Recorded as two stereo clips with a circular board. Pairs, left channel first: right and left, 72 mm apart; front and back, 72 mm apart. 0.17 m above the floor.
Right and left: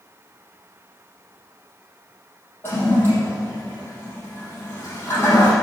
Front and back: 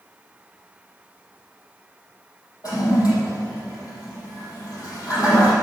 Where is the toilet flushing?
35° right, 5.5 m.